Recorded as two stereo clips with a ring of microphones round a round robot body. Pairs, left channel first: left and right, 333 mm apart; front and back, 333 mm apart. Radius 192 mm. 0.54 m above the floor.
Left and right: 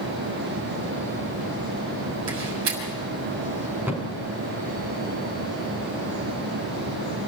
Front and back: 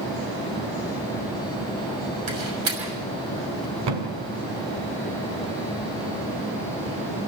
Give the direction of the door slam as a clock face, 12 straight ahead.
5 o'clock.